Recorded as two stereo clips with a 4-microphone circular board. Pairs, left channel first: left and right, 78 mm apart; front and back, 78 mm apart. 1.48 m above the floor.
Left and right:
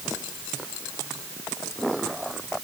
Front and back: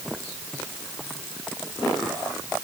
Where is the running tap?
No running tap in this recording.